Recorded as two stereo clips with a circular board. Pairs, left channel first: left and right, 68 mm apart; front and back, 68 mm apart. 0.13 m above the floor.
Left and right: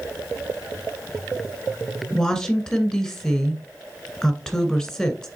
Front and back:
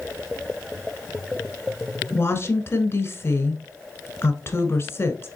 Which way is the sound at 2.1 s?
10° left.